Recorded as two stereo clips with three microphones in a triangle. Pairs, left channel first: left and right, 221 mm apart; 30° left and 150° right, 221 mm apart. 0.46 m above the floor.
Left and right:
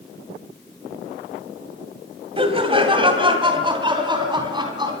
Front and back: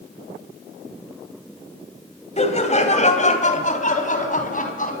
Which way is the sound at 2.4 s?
30° right.